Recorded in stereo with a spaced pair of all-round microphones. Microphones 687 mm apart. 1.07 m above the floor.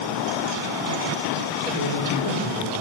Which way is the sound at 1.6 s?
70° right (ahead or behind).